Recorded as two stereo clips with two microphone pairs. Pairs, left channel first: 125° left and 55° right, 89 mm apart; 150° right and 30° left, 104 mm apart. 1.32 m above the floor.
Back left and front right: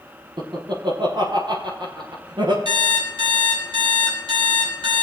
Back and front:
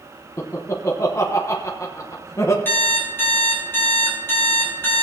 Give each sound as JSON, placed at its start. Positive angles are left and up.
{"t": 0.4, "sound": "laughter", "azimuth_deg": -90, "distance_m": 0.9}
{"t": 2.6, "sound": "an alarm clock", "azimuth_deg": -85, "distance_m": 3.5}